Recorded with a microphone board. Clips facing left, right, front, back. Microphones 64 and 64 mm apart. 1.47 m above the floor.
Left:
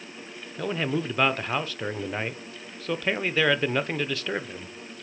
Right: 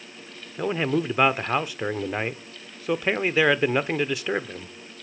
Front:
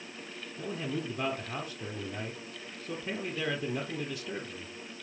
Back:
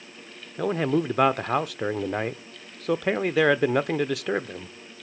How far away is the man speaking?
About 0.6 m.